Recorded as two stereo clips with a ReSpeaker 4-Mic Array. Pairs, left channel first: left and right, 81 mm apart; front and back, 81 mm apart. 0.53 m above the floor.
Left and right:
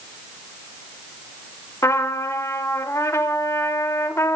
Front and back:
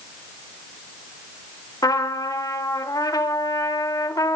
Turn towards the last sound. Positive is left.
turn(degrees=40)